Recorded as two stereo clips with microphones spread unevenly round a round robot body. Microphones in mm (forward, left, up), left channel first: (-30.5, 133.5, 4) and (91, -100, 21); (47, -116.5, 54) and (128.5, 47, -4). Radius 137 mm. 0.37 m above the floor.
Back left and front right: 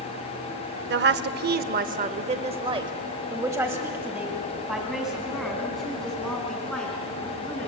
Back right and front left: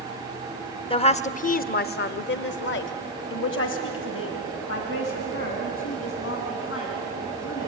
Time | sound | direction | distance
0.9 | a woman speaking | 50° right | 1.0 m